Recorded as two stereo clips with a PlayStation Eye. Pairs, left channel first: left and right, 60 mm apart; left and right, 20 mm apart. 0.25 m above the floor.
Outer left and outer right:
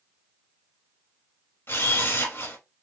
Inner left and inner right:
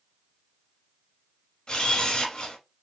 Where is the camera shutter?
45° left (ahead or behind), 1.3 m.